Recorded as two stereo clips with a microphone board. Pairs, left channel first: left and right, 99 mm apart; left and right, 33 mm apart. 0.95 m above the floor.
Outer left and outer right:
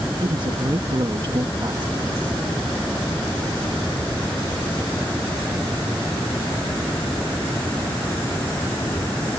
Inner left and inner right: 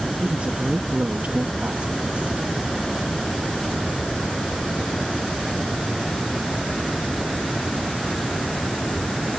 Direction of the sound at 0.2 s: 50° right (ahead or behind).